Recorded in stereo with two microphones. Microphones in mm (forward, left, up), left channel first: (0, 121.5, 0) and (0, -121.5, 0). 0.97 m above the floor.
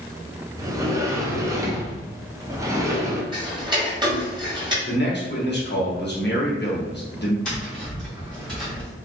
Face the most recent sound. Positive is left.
turn(degrees=5)  # may be behind; listen again after turning